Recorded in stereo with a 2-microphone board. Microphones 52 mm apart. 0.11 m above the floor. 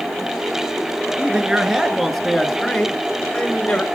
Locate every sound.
1.2 s a man speaking: 20° right (ahead or behind), 1.9 m; by 3.8 s 25° left (ahead or behind), 1.8 m